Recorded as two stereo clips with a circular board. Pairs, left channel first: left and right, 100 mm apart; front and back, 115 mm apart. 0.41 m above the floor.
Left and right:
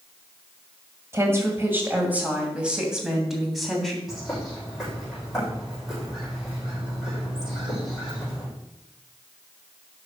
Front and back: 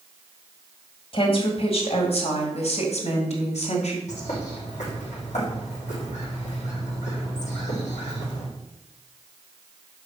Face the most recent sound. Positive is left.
turn(degrees=0)